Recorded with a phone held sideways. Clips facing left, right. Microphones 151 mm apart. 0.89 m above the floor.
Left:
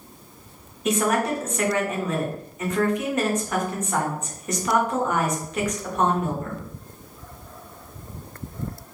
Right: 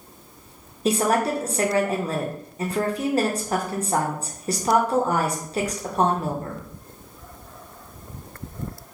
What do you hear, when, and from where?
0.8 s a woman speaking: 35° right (ahead or behind), 0.7 m